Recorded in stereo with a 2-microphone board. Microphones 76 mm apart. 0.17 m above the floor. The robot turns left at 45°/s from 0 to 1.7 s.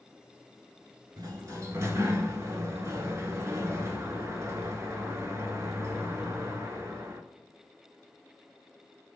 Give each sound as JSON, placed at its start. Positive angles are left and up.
{"t": 1.2, "sound": "a sliding door", "side_deg": -60, "distance_m": 0.6}